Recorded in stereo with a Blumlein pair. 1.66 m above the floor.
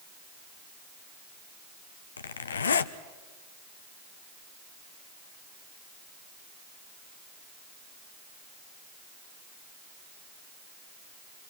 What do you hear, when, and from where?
2.2 s a zipper: 70° left, 1.0 m